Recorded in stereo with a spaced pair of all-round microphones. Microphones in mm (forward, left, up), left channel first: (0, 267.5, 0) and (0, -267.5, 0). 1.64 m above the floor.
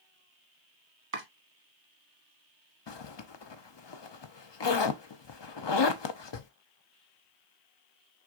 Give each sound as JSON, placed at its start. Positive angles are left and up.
{"t": 1.1, "sound": "chopping", "side_deg": -75, "distance_m": 1.3}
{"t": 2.9, "sound": "a zipper", "side_deg": 55, "distance_m": 0.6}